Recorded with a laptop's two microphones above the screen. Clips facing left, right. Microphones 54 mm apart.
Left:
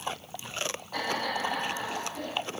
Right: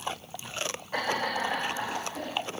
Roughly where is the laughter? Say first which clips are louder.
Right 2 dB; right.